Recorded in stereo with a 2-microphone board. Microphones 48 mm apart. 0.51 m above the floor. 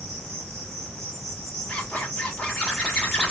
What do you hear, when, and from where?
0.0 s an insect: 60° right (ahead or behind), 1.1 m
1.7 s a zipper: 20° left (ahead or behind), 0.9 m